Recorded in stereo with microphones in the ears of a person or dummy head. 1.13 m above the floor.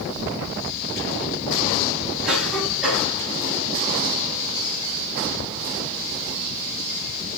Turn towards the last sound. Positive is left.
turn(degrees=-5)  # may be behind; listen again after turning